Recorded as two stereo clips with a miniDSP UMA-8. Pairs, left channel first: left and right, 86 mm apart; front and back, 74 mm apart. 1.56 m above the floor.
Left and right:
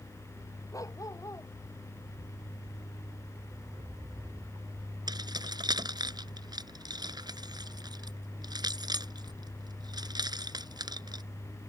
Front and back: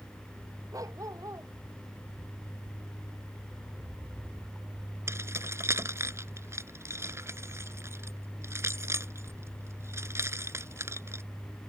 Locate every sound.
0.7 s a dog barking: 140° left
3.6 s a rattle: 85° right
5.1 s keys jangling: 125° right